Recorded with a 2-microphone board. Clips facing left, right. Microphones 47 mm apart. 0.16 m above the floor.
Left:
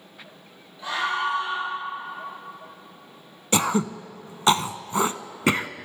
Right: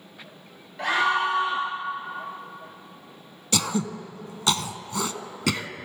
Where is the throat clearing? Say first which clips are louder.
Left 4 dB; 30° left (ahead or behind), 0.9 m.